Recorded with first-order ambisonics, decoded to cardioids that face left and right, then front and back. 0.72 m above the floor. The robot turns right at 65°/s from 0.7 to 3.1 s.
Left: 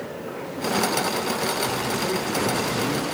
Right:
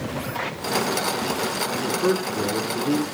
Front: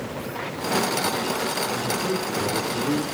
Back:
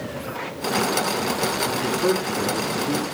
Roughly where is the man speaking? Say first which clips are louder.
Right 2 dB, back 3 dB; behind right.